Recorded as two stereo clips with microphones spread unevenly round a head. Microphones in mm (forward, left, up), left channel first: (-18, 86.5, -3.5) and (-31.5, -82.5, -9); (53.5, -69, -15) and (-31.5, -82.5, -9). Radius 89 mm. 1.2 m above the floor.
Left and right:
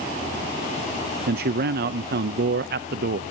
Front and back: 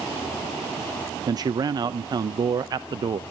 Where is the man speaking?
130° right, 0.6 m.